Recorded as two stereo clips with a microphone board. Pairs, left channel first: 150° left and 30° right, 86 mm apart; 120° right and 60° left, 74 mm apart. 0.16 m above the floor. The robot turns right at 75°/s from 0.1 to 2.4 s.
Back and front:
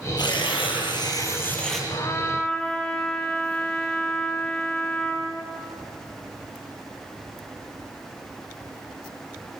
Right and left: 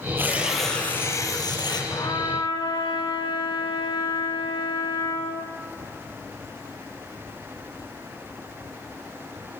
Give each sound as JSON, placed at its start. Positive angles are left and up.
{"t": 0.2, "sound": "tearing paper", "azimuth_deg": 120, "distance_m": 5.0}
{"t": 1.9, "sound": "a trumpet", "azimuth_deg": -165, "distance_m": 3.5}